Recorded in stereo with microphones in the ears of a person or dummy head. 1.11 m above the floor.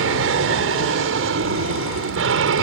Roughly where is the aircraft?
Right.